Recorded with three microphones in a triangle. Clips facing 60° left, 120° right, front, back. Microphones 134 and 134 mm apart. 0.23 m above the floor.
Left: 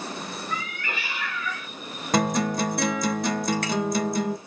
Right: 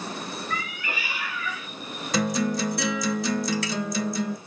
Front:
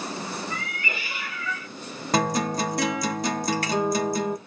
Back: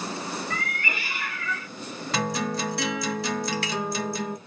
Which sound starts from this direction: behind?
A cat meowing, at 0.5 s.